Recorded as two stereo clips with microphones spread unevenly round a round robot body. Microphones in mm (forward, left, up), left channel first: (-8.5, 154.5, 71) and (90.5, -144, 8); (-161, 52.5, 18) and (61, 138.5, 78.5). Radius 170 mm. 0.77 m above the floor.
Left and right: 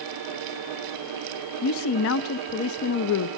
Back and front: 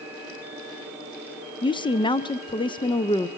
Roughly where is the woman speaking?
Behind left.